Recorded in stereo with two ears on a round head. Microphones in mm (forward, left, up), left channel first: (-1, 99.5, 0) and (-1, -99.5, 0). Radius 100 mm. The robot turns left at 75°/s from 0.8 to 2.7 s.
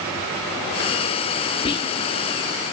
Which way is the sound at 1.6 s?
25° left (ahead or behind).